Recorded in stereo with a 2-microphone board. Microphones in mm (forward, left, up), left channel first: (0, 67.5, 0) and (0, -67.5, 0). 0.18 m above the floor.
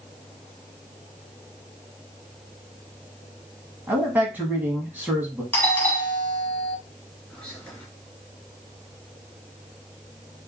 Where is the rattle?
I don't hear a rattle.